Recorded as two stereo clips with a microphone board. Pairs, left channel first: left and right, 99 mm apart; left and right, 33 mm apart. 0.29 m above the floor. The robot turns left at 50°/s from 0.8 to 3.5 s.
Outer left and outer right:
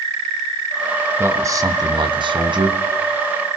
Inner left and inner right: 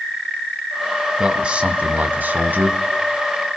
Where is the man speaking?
25° right, 2 m; by 2.8 s 105° right, 2 m.